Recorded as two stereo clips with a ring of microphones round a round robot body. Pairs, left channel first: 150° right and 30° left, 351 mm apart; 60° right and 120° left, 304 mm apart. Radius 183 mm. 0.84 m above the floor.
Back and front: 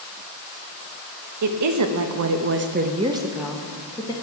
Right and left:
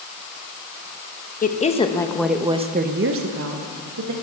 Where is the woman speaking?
Straight ahead, 1.2 m; by 4.1 s 130° left, 1.4 m.